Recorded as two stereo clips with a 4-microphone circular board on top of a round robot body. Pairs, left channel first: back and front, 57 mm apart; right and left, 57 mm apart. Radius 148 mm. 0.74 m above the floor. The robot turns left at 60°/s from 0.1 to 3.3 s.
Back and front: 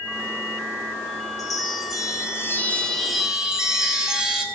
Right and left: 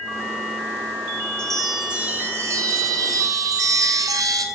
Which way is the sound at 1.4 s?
165° right.